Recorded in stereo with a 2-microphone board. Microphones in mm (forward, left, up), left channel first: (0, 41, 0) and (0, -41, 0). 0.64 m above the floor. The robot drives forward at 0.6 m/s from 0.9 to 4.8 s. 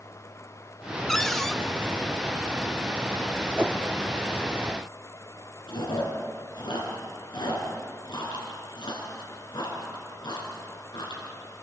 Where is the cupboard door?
5° left (ahead or behind), 0.6 m.